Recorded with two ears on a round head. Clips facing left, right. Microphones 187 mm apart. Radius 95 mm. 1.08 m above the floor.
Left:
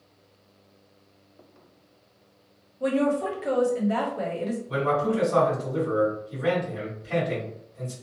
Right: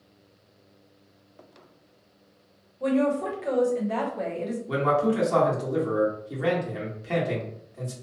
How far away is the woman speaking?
About 0.9 m.